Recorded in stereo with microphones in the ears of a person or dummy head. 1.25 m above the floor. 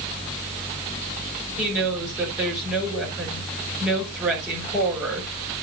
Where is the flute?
I don't hear a flute.